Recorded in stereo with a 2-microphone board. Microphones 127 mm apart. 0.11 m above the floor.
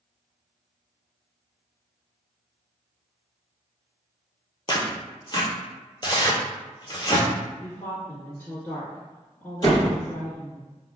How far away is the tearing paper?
About 0.6 m.